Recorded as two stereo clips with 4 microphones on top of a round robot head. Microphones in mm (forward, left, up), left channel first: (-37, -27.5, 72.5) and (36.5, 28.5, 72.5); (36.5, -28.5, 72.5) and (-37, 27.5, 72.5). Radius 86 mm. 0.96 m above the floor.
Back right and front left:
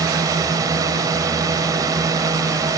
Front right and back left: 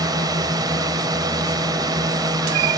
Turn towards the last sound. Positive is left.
turn(degrees=90)